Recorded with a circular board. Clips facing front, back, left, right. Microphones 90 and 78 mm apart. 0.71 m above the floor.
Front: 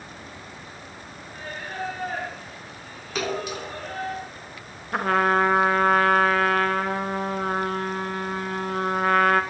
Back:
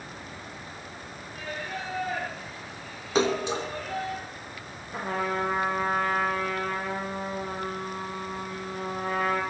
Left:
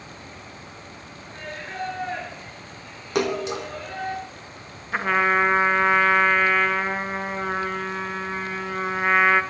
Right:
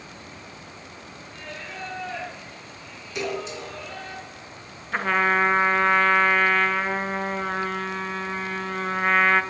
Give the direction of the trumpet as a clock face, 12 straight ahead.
12 o'clock.